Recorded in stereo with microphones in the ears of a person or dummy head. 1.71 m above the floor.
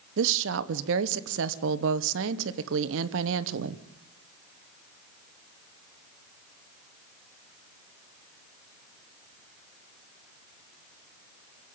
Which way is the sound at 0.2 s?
70° right (ahead or behind).